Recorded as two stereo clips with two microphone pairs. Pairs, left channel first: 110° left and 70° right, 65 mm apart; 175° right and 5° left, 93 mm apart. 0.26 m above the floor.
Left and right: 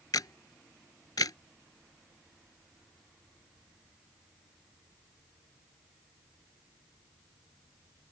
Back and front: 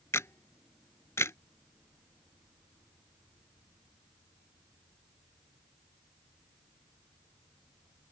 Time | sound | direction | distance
0.1 | a camera shutter | 120° left | ?